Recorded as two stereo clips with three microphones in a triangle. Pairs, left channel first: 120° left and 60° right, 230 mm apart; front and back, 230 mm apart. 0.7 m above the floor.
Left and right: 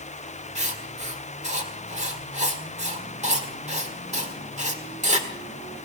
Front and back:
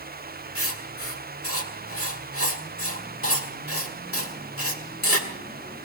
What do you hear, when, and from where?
0.6 s writing: straight ahead, 1.7 m